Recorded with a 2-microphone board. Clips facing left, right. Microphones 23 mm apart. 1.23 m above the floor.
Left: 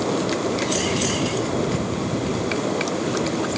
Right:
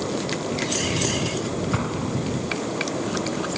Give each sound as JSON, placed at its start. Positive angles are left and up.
{"t": 1.7, "sound": "an explosion", "side_deg": -45}